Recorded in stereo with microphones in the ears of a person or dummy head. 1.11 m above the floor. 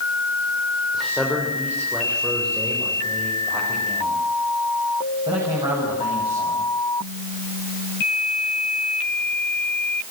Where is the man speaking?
5° left (ahead or behind), 4 m; by 6.7 s 25° right (ahead or behind), 7.5 m.